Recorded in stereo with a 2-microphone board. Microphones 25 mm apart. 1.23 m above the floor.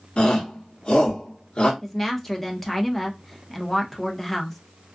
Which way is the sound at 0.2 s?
45° left (ahead or behind).